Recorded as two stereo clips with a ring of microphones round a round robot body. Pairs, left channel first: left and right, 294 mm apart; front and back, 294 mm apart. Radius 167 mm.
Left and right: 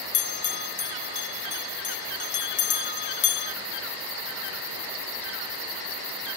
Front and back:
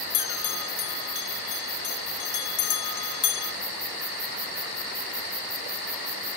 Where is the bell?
35° left, 0.6 m.